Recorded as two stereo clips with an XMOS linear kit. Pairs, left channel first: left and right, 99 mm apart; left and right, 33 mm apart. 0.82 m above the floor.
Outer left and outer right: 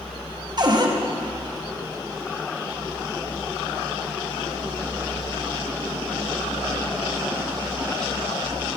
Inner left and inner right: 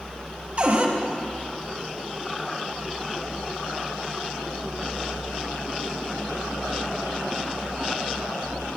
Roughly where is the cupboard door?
Right.